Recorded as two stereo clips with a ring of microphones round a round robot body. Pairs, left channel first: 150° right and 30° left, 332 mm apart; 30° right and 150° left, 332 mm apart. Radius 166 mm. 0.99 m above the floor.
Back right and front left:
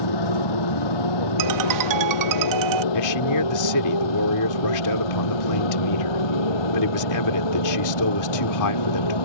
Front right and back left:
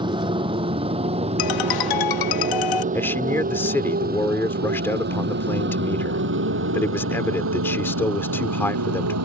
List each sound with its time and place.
0.0 s a motorcycle: 135° right; by 9.2 s 165° right
1.4 s a ringtone: 5° right
2.9 s a man speaking: 115° right